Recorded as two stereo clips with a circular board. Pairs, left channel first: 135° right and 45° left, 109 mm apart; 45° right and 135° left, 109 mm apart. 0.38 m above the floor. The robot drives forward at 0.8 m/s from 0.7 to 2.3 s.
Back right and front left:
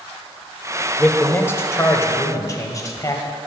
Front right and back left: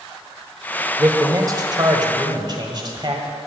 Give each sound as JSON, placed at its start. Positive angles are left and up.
{"t": 1.0, "sound": "a man speaking", "azimuth_deg": 160, "distance_m": 1.1}